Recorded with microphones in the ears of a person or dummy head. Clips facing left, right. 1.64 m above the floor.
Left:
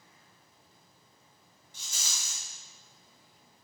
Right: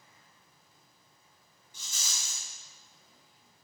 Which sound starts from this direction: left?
A rattle, at 1.7 s.